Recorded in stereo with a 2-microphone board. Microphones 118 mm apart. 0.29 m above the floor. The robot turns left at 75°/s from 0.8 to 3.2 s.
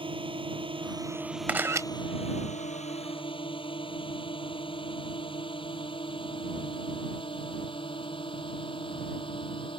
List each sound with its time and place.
0.0 s a drone: 45° right (ahead or behind); by 9.8 s 45° left (ahead or behind)
1.5 s a camera shutter: 10° right (ahead or behind); by 1.9 s 30° right (ahead or behind)